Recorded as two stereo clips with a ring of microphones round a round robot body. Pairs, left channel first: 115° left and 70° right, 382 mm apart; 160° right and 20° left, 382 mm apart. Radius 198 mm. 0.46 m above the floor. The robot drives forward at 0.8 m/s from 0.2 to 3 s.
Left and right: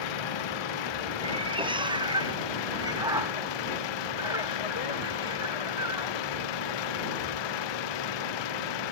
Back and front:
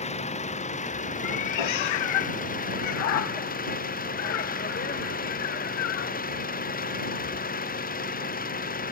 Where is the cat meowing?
145° right; by 6.1 s 150° right.